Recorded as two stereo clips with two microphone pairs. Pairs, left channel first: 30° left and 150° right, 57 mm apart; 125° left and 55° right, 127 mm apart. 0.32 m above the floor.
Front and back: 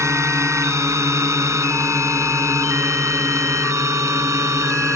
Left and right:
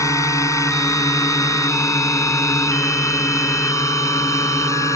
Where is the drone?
175° right; by 5.0 s 170° right.